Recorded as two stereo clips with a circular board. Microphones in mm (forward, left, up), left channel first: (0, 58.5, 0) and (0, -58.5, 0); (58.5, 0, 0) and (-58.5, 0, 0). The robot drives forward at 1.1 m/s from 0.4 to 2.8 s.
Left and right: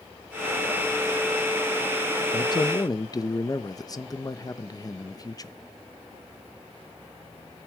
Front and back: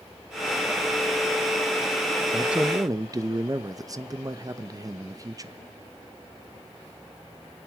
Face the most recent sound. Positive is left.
turn(degrees=135)